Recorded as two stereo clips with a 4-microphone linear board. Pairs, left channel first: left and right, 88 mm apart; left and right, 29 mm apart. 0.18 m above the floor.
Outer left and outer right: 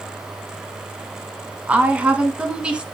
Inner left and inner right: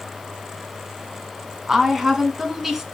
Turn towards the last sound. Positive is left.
turn(degrees=-10)  # may be behind; listen again after turning